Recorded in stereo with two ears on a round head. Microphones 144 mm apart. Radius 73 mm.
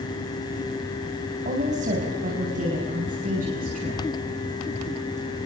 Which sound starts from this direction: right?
A woman speaking, at 1.4 s.